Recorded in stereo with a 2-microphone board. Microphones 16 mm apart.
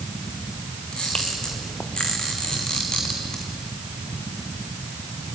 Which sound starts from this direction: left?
A camera shutter, at 0.9 s.